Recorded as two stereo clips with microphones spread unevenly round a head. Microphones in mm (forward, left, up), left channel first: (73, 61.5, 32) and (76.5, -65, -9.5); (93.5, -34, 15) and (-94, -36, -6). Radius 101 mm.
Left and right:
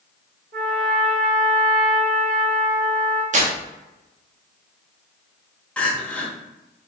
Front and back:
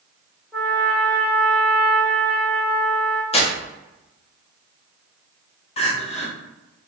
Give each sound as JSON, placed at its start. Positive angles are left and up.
{"t": 0.5, "sound": "a trumpet", "azimuth_deg": -100, "distance_m": 1.6}
{"t": 3.3, "sound": "tearing paper", "azimuth_deg": -60, "distance_m": 1.0}
{"t": 5.8, "sound": "crying", "azimuth_deg": 35, "distance_m": 0.7}